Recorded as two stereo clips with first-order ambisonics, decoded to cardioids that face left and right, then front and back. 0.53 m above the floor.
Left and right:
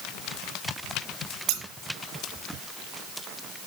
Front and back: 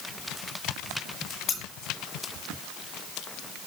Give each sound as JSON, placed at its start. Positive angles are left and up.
{"t": 1.5, "sound": "scissors", "azimuth_deg": -65, "distance_m": 2.5}